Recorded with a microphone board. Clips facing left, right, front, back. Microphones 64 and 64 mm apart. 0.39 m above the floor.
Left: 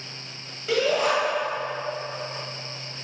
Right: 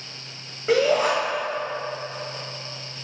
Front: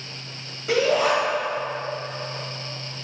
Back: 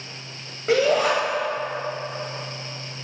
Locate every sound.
0.7 s a shout: 145° right, 2.5 m